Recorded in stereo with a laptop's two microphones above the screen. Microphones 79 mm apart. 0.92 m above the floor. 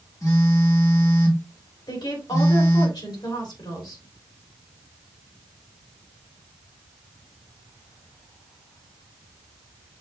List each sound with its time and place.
0.2 s a phone buzzing: 45° left (ahead or behind), 1.1 m
1.9 s a woman speaking: 75° left (ahead or behind), 2.5 m